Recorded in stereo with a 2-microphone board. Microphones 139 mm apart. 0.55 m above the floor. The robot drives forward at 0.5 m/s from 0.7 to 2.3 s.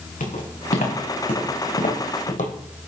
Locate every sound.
0.2 s footsteps: 75° left (ahead or behind), 4 m; by 2.5 s 65° left (ahead or behind), 1.3 m